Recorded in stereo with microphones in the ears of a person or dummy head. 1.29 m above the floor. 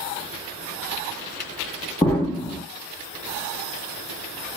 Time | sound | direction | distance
2.0 | an explosion | 15° left (ahead or behind) | 0.9 m